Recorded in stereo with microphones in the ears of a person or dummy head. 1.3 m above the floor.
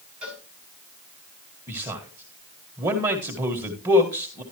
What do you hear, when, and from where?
0.2 s a cowbell: 5° right (ahead or behind), 7 m
1.7 s a man speaking: 20° right (ahead or behind), 1.6 m